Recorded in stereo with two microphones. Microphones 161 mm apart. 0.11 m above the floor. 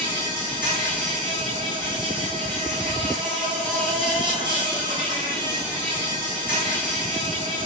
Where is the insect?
30° right (ahead or behind), 1.9 m.